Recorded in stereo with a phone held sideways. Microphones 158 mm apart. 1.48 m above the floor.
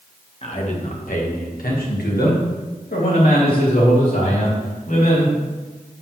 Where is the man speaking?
40° left (ahead or behind), 1.5 m; by 5.4 s 70° left (ahead or behind), 4 m.